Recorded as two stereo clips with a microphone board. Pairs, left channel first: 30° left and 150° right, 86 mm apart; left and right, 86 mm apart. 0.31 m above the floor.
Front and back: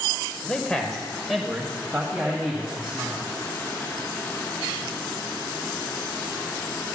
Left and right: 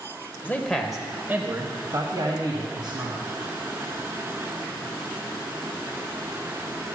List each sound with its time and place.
0.4 s a man speaking: 90° left, 1.2 m; by 3.3 s 75° right, 3 m